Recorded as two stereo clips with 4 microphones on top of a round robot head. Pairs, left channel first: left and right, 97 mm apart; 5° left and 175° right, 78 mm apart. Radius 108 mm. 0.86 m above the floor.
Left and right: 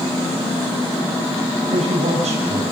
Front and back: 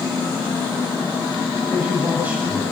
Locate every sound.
1.7 s a man speaking: 100° right, 7.5 m